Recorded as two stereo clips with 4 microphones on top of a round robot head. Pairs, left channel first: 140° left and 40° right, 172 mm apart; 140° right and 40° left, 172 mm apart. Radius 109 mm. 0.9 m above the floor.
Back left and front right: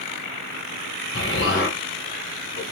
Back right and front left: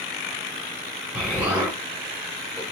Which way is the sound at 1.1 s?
120° left.